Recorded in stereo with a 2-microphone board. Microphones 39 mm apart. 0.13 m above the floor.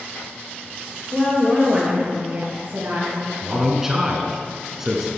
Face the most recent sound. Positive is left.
turn(degrees=-10)  # may be behind; listen again after turning